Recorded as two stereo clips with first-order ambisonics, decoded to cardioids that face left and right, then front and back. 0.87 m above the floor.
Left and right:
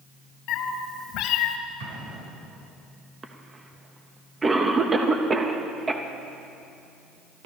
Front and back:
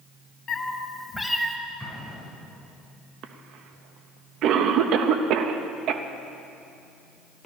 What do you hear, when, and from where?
0.5 s a cat meowing: 60° left, 1.4 m; by 1.6 s 105° left, 0.9 m
1.8 s an explosion: 95° right, 3.5 m
3.2 s a cough: 160° right, 0.7 m